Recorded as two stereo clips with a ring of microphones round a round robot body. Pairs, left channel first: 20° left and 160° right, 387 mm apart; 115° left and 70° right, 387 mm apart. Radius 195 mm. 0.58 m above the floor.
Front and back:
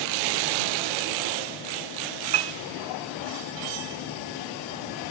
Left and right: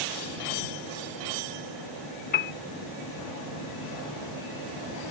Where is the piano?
Straight behind.